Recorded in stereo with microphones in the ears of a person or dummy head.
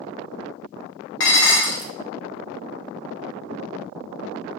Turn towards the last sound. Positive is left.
turn(degrees=60)  # may be behind; listen again after turning